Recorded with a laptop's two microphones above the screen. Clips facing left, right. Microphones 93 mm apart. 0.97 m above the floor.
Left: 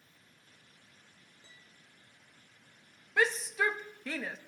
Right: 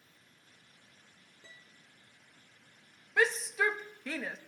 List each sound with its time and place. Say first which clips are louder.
1.4 s a piano: right 5 dB; 70° right (ahead or behind), 2.5 m
3.2 s a shout: even; 5° right (ahead or behind), 1.4 m